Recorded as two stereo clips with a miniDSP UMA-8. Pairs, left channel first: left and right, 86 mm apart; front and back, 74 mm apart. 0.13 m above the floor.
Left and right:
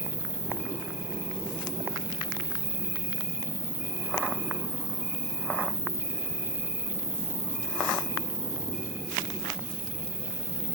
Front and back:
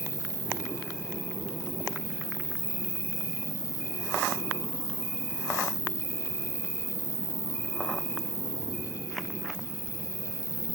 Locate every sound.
0.0 s an insect: 35° right, 1.5 m